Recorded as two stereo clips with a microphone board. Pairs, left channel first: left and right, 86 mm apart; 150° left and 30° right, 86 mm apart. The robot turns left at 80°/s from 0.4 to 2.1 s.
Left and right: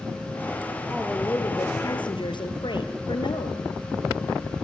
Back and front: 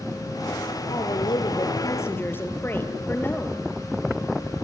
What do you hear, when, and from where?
0.9 s a woman speaking: 175° right, 2.5 m; by 3.6 s 90° left, 2.5 m